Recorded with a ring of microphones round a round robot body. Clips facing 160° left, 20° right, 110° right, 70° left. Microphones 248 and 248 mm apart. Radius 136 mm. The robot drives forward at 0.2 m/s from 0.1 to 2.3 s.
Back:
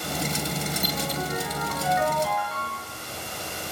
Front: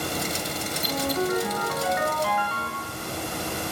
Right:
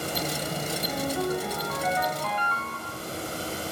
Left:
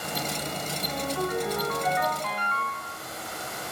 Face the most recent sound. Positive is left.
turn(degrees=-50)